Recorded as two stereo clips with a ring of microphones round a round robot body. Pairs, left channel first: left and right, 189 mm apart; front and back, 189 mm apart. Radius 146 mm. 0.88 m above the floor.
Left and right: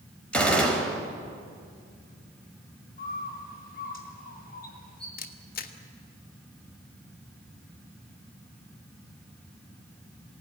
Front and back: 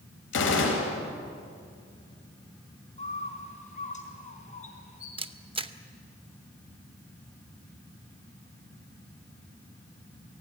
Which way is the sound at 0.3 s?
5° left.